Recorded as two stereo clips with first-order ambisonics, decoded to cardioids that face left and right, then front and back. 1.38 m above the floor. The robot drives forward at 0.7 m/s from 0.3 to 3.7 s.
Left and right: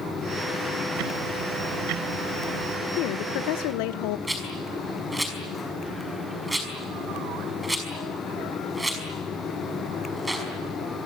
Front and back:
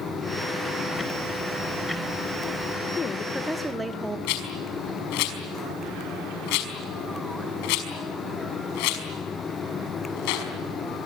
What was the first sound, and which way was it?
Ticking, 80° right.